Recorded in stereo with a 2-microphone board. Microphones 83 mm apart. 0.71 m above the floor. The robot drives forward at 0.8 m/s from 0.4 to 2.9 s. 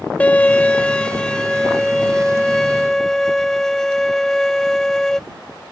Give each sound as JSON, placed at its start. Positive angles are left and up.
{"t": 0.2, "sound": "a violin", "side_deg": 20}